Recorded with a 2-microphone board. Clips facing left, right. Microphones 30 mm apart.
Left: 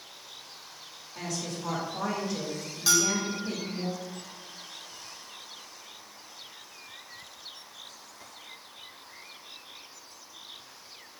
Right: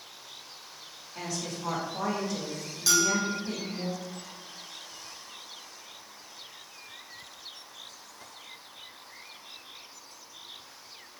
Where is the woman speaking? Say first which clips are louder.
Even; 10° right (ahead or behind), 1.1 m; by 3.9 s 30° left (ahead or behind), 0.9 m.